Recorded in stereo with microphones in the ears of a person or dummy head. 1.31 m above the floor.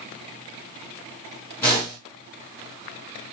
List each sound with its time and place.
1.6 s a whoosh: 15° left (ahead or behind), 1.6 m